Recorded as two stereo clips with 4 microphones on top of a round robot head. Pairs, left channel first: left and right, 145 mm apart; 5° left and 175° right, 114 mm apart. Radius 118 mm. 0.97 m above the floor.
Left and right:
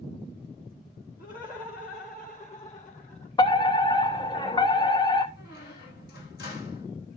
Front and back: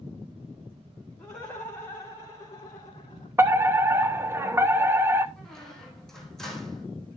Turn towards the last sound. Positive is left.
turn(degrees=90)